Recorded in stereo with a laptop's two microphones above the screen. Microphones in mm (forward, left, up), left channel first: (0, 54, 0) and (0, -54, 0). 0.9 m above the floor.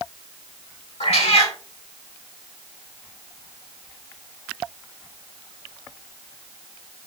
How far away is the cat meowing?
About 1.3 m.